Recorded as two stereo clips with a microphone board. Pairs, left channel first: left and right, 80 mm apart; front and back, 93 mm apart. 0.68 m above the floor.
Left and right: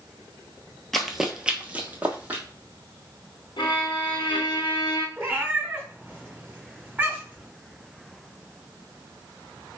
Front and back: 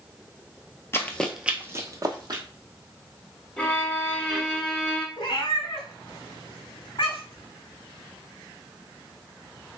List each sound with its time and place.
0.9 s running footsteps: 5° left, 0.7 m; by 2.4 s 155° right, 1.2 m
3.6 s a violin: 80° left, 0.7 m
5.2 s a cat meowing: 20° right, 1.1 m